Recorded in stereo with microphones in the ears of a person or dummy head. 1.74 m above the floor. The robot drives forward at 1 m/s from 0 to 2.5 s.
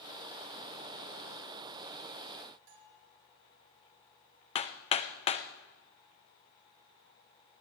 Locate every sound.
2.7 s a bell: 75° right (ahead or behind), 4 m
4.5 s hammering: 35° left (ahead or behind), 0.9 m